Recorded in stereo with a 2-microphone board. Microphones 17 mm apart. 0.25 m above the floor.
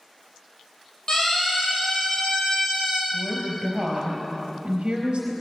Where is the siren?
45° left (ahead or behind), 9.5 m; by 3.0 s 55° left (ahead or behind), 8 m.